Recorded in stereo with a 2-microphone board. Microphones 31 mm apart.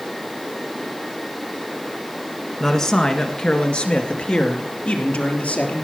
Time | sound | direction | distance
2.6 | a man speaking | 15° left (ahead or behind) | 1.6 m